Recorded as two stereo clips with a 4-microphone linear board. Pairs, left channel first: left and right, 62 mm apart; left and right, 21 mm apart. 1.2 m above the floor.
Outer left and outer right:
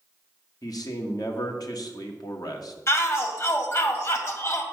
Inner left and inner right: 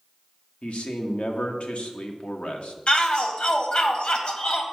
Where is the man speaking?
75° left (ahead or behind), 1.3 m.